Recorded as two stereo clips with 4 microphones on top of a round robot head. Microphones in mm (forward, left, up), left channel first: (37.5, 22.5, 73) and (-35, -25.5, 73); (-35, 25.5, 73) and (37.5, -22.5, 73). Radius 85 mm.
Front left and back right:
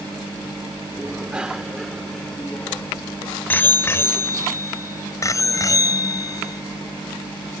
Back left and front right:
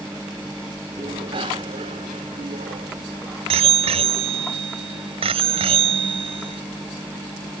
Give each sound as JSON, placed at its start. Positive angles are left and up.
{"t": 1.0, "sound": "a bicycle bell", "azimuth_deg": -70}